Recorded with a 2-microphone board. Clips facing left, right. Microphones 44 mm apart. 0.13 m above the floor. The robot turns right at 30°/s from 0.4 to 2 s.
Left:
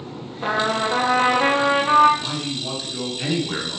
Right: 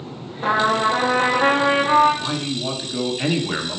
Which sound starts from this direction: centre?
A man speaking, at 2.2 s.